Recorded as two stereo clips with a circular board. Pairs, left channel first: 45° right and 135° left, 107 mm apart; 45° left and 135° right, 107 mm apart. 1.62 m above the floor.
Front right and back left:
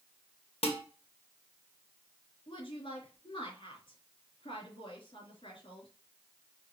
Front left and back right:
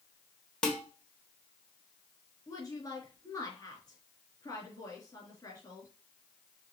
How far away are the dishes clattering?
About 1.5 m.